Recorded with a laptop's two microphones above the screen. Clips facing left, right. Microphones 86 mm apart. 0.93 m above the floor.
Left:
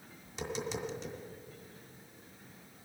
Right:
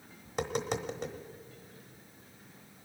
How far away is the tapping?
About 1.0 m.